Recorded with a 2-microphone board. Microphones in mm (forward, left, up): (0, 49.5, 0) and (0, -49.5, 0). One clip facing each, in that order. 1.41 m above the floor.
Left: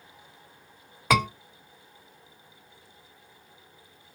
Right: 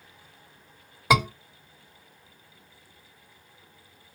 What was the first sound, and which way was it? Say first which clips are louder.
A scream: right 1 dB; 15° right (ahead or behind).